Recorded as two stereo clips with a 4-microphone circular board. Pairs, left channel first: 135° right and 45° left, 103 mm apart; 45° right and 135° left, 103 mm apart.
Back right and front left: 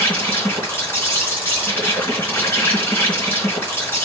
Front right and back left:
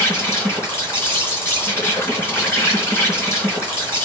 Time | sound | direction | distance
0.0 | an insect | 90° right | 2 m